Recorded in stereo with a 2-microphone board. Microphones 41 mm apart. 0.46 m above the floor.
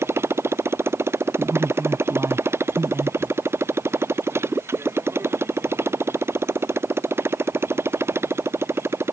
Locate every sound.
0.0 s a motorcycle: 85° right; by 9.1 s 80° right
1.4 s a man speaking: 70° right (ahead or behind)